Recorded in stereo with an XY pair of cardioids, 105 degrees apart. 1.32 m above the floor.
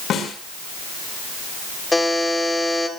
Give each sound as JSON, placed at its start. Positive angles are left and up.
{"t": 0.1, "sound": "a snare drum", "azimuth_deg": 65, "distance_m": 4.5}
{"t": 1.9, "sound": "a buzzer", "azimuth_deg": 15, "distance_m": 3.0}